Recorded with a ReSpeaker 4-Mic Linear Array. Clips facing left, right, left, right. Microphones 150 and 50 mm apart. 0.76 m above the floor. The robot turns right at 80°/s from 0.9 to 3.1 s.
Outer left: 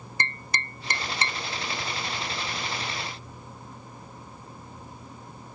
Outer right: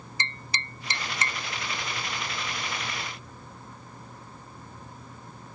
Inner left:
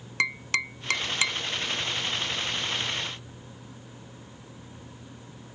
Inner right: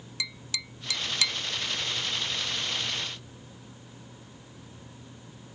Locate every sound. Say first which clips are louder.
0.2 s tapping: outer left 4 dB, inner left 11 dB; 55° left (ahead or behind); by 1.4 s 15° left (ahead or behind)